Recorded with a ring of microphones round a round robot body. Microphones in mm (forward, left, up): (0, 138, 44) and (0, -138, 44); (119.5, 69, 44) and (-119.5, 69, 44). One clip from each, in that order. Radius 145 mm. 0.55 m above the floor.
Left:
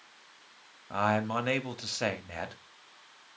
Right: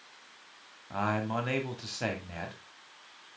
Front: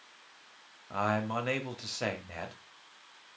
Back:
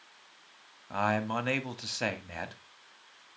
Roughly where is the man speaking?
Behind left.